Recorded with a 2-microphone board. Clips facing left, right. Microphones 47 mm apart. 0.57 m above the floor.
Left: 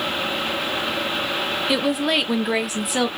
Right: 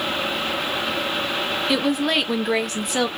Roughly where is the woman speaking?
Centre.